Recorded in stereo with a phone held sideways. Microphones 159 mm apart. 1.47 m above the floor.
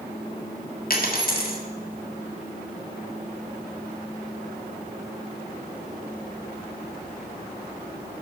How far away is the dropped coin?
About 1.6 m.